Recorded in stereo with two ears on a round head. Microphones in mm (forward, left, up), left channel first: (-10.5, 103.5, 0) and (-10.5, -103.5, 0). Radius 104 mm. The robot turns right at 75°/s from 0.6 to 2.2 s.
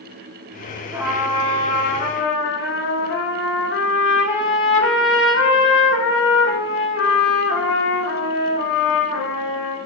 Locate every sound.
0.9 s a trumpet: 15° right, 2.0 m; by 9.8 s 85° left, 2.0 m